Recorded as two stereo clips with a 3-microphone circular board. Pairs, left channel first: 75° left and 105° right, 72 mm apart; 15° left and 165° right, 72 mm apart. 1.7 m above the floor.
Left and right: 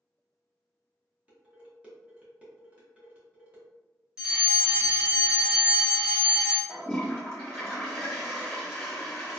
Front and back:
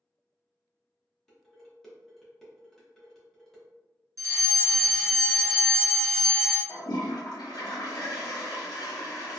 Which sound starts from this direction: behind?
A fire alarm, at 4.2 s.